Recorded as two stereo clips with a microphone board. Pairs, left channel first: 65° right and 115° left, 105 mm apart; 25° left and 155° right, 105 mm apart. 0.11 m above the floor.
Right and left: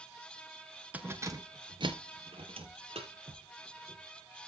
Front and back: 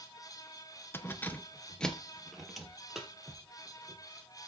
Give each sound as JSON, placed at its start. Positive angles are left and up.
{"t": 0.9, "sound": "keys jangling", "azimuth_deg": 55, "distance_m": 1.2}